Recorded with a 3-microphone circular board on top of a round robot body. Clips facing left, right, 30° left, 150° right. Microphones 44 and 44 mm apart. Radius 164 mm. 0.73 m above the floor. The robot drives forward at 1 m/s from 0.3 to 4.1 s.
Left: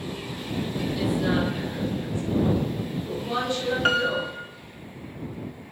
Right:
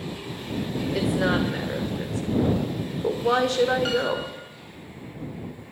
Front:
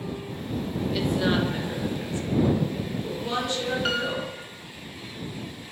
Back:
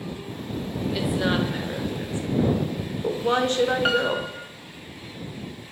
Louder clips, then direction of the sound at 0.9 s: Right 2 dB, even; 65° right.